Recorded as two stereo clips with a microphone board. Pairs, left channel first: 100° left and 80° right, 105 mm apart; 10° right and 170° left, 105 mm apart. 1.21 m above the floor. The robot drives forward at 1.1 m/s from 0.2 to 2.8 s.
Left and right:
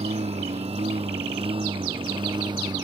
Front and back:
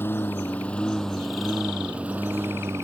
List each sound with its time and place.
0.0 s a lawn mower: 80° right; by 2.8 s 125° right